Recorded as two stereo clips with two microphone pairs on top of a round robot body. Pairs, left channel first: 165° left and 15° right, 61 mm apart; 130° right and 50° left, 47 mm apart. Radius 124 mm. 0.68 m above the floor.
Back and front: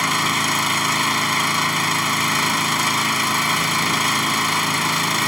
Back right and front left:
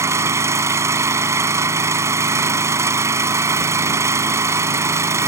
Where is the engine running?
70° left.